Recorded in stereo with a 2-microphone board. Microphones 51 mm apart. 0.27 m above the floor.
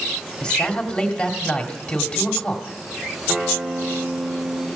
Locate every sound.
0.4 s a man speaking: 25° left (ahead or behind), 1.6 m
3.3 s a guitar: 20° right (ahead or behind), 1.1 m